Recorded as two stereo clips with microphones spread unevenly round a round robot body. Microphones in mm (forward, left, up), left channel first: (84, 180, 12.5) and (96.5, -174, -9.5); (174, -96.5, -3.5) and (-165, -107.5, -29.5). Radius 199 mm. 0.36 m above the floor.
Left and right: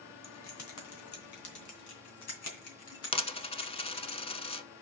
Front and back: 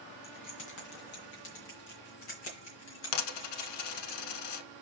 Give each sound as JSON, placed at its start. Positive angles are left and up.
{"t": 0.2, "sound": "keys jangling", "azimuth_deg": 50, "distance_m": 2.5}
{"t": 3.1, "sound": "a dropped coin", "azimuth_deg": 15, "distance_m": 0.9}